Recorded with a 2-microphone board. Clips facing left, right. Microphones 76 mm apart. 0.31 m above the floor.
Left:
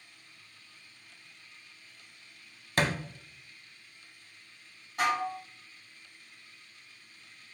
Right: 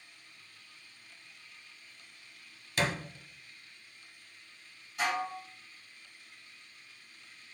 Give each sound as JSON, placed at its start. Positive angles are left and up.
{"t": 2.8, "sound": "a thud", "side_deg": 50, "distance_m": 0.6}
{"t": 5.0, "sound": "dishes clattering", "side_deg": 50, "distance_m": 1.6}